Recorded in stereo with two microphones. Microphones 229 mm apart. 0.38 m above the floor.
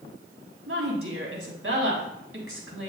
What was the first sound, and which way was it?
A woman speaking, 65° right (ahead or behind).